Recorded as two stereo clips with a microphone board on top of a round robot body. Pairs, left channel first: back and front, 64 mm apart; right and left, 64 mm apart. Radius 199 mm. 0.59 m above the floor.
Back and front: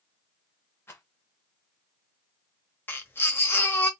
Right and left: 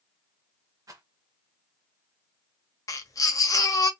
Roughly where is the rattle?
Behind left.